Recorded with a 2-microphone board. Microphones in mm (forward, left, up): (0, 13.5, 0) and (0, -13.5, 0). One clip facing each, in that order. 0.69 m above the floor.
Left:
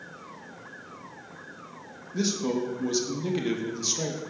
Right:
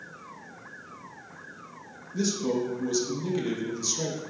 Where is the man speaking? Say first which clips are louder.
Even; 20° left (ahead or behind), 0.5 m.